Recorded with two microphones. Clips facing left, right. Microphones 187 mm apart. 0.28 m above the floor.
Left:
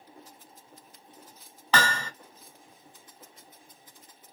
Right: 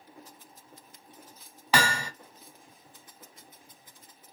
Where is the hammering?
10° right (ahead or behind), 0.6 m.